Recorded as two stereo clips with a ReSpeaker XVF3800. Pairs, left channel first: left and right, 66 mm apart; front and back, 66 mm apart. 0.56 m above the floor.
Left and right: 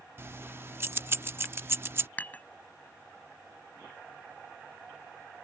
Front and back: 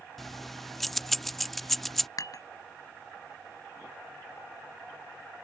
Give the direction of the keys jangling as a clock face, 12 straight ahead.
3 o'clock.